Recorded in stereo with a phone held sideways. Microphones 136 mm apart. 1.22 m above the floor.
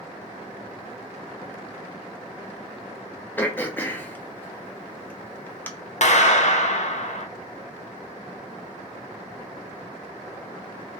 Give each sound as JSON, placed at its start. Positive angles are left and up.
{"t": 3.4, "sound": "throat clearing", "side_deg": 15, "distance_m": 0.7}
{"t": 6.0, "sound": "a clap", "side_deg": 60, "distance_m": 0.6}